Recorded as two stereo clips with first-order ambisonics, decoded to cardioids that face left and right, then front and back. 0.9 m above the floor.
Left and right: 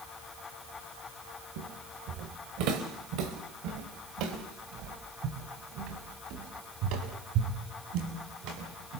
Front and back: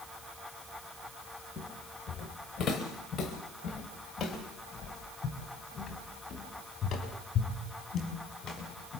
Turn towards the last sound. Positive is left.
turn(degrees=-65)